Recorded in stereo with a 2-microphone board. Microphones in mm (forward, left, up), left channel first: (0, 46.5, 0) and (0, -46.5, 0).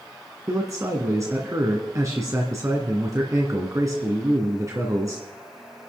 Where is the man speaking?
35° right (ahead or behind), 1.9 m.